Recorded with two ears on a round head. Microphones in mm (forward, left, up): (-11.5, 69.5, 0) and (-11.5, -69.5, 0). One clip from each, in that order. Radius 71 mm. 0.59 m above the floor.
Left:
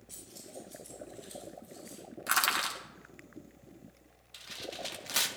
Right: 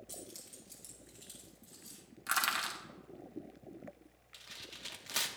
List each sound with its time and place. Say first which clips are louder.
0.1 s keys jangling: left 5 dB; 60° right (ahead or behind), 3 m; by 2.0 s 80° right, 5 m
2.3 s crushing: left 4 dB; 5° left (ahead or behind), 1.2 m
4.3 s tearing paper: left 7 dB; 5° left (ahead or behind), 0.5 m